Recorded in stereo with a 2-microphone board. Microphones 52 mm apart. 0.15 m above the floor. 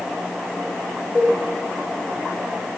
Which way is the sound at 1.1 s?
20° left (ahead or behind).